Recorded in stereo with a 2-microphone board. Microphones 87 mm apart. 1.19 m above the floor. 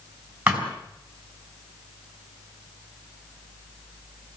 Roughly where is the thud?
Centre.